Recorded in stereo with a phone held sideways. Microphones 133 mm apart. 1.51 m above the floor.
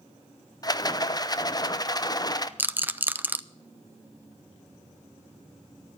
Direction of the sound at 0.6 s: 30° left (ahead or behind).